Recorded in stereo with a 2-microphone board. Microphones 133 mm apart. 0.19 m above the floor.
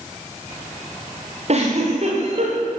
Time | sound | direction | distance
1.5 | a giggle | 50° right (ahead or behind) | 8 m